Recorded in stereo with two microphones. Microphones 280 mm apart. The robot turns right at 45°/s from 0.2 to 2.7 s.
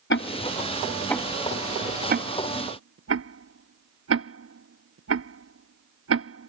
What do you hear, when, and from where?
0.1 s ticking: 45° left (ahead or behind); by 6.5 s 55° right (ahead or behind)